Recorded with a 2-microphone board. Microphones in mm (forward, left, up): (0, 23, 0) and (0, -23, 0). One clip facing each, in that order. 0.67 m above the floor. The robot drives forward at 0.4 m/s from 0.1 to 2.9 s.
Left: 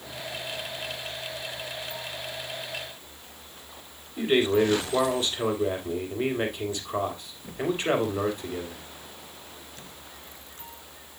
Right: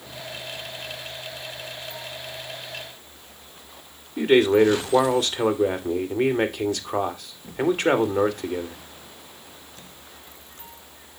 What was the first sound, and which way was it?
A man speaking, 60° right (ahead or behind).